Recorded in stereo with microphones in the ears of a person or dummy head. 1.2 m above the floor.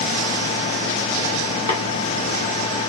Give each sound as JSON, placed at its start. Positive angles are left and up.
{"t": 1.7, "sound": "tapping", "side_deg": 25, "distance_m": 1.3}